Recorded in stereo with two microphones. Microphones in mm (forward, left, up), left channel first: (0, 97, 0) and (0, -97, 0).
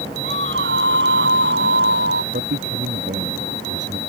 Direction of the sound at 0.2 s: 80° right.